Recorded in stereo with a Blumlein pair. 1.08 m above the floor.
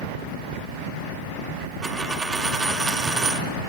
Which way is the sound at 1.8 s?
15° right.